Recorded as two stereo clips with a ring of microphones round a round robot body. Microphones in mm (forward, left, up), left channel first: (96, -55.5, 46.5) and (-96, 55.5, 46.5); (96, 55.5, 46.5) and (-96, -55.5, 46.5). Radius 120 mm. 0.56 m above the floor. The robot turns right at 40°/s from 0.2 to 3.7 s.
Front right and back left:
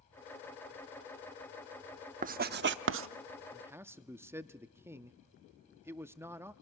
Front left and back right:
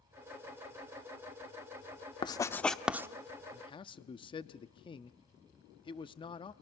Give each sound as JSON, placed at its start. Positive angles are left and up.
{"t": 2.2, "sound": "writing", "azimuth_deg": 100, "distance_m": 0.7}
{"t": 3.5, "sound": "a man speaking", "azimuth_deg": 70, "distance_m": 0.7}